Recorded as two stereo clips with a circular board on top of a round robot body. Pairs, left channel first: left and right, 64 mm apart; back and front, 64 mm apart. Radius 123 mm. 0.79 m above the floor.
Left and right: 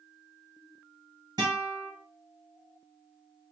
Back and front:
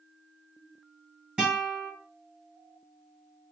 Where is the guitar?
75° right, 1.3 m.